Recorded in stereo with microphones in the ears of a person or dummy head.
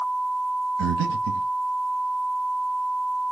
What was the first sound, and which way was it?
Breathing, 70° right (ahead or behind).